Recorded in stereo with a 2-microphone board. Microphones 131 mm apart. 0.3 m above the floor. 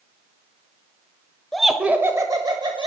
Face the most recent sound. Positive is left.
turn(degrees=-40)  # may be behind; listen again after turning